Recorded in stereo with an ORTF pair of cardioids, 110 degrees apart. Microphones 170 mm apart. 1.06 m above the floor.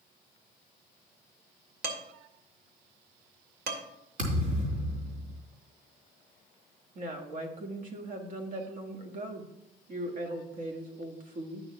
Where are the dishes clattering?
60° right, 1.7 m.